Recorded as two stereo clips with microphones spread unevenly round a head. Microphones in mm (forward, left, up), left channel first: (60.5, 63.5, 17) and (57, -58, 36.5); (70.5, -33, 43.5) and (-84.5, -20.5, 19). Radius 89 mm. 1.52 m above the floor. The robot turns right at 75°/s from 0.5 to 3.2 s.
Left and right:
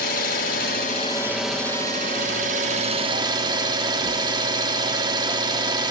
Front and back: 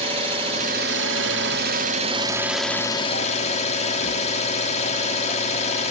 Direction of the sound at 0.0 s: 115° left.